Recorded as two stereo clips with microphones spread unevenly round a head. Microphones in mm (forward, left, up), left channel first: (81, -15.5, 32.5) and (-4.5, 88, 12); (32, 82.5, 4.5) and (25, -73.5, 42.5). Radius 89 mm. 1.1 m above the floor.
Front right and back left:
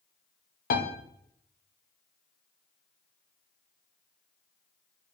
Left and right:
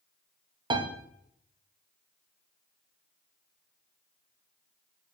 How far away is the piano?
About 0.9 m.